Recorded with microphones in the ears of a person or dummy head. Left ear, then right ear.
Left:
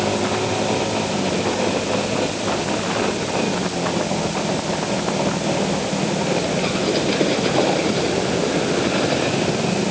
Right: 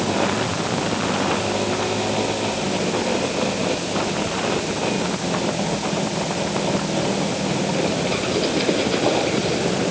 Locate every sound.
Only background noise.